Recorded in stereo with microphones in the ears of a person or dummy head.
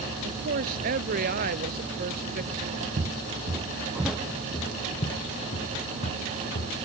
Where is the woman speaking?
50° right (ahead or behind).